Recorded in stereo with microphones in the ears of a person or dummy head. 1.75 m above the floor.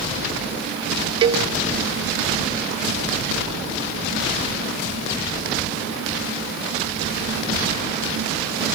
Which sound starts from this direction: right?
A cowbell, at 1.2 s.